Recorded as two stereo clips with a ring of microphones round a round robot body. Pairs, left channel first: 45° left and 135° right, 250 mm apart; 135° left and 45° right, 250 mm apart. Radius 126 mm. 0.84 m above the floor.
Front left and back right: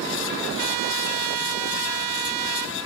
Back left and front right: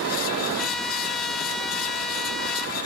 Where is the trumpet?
135° right, 1.3 m.